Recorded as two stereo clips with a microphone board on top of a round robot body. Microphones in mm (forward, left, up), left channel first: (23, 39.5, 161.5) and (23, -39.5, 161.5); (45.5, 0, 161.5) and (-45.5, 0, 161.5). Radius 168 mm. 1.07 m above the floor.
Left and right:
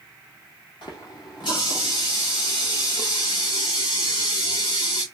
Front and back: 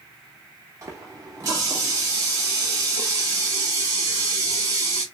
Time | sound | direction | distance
0.8 | a running tap | 125° left | 0.6 m